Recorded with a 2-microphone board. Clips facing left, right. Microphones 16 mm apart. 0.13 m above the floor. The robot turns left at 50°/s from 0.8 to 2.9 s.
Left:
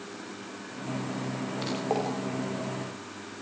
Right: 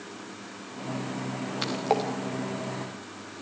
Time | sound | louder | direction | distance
1.6 | a splash | right 3 dB | 35° right (ahead or behind) | 5 m